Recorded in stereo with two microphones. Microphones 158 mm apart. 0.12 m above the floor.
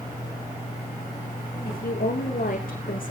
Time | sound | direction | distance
1.6 | a woman speaking | 65° left (ahead or behind) | 7 m